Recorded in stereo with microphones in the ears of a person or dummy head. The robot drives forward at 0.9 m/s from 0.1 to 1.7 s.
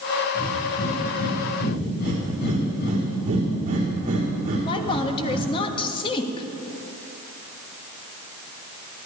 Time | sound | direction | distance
0.3 | breathing | 50° left (ahead or behind) | 6 m
2.0 | breathing | 40° right (ahead or behind) | 4 m
4.6 | a woman speaking | 30° left (ahead or behind) | 1.6 m